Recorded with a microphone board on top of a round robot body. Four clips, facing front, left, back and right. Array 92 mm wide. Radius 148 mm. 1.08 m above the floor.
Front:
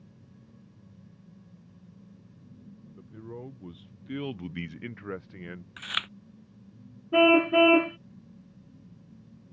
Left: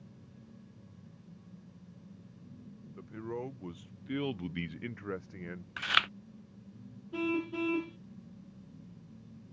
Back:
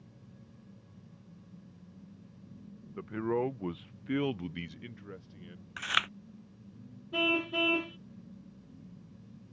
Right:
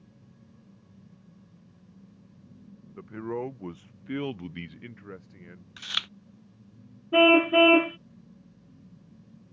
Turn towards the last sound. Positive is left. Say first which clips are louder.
# right 15 dB, front 12 dB
turn(degrees=-50)